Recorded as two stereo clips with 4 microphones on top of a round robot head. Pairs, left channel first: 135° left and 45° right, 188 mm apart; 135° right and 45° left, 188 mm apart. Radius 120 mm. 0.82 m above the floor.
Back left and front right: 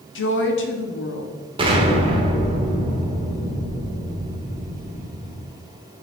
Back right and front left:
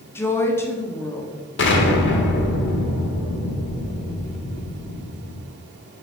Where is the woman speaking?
150° left, 1.3 m.